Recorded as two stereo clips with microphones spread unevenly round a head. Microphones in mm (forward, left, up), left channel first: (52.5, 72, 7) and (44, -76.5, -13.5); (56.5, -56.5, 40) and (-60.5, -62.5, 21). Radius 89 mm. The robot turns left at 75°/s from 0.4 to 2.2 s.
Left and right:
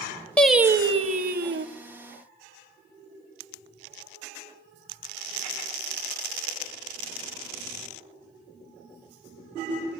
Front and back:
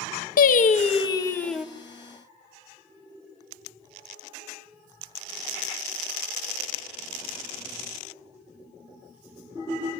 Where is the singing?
5° left, 1.5 m; by 1.7 s 90° right, 1.5 m.